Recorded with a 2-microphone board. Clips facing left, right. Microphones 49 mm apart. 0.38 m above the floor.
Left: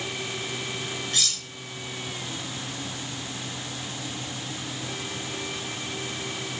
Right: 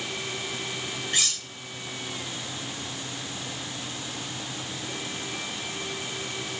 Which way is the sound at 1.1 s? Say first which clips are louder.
Right 2 dB; 25° right (ahead or behind).